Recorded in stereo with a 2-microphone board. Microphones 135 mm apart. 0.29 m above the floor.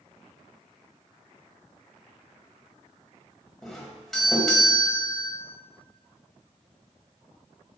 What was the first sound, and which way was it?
A doorbell, 5° left (ahead or behind).